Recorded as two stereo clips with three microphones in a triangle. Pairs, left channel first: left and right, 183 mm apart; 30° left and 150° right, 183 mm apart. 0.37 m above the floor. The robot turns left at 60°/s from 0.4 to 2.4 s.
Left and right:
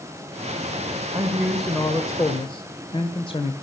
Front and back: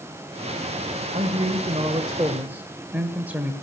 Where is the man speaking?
150° right, 1.5 m; by 3.5 s 135° left, 1.5 m.